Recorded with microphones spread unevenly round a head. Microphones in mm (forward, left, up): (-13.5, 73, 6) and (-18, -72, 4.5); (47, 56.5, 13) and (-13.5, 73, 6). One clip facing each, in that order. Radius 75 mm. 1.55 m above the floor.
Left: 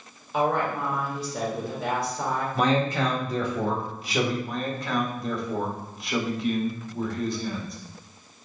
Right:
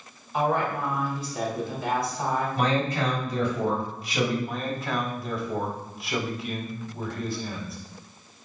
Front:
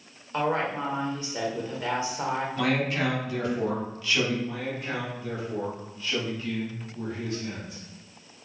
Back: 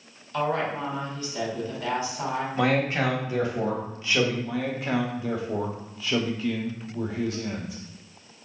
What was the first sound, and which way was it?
A woman speaking, 50° left.